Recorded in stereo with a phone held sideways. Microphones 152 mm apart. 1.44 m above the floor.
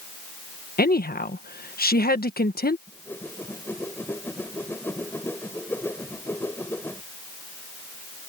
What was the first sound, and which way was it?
A woman speaking, 85° left.